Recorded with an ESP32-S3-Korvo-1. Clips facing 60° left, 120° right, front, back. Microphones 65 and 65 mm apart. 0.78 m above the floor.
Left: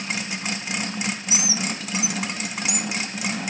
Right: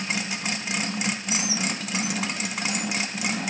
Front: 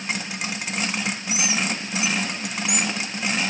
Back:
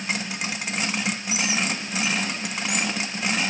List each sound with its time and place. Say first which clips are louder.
1.3 s a bird: even, front 1 dB; 20° right, 1.7 m